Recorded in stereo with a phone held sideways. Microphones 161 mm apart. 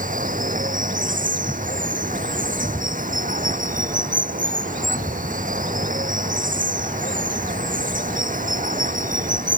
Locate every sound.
0.0 s running water: 55° right (ahead or behind)